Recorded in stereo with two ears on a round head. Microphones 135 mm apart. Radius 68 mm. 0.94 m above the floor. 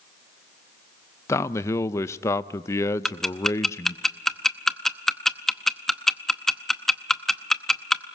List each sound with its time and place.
1.3 s a man speaking: 20° left (ahead or behind), 0.6 m
3.0 s ticking: 5° left (ahead or behind), 0.7 m